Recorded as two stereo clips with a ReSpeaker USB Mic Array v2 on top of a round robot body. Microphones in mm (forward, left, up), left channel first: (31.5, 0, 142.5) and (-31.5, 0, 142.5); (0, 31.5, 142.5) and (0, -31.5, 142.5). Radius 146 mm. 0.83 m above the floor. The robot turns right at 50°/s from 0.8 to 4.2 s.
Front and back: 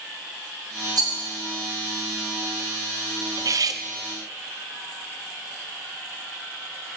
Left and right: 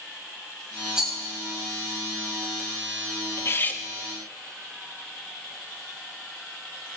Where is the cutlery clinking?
140° left, 0.9 m; by 3.8 s 160° left, 0.9 m.